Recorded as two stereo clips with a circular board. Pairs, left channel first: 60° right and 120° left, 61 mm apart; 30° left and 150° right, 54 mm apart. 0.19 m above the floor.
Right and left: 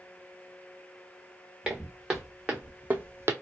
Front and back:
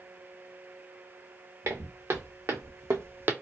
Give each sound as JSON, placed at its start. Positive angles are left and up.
{"t": 1.6, "sound": "footsteps", "azimuth_deg": -160, "distance_m": 1.3}